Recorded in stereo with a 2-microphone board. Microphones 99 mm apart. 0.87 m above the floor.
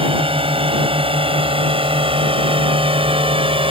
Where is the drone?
75° right (ahead or behind).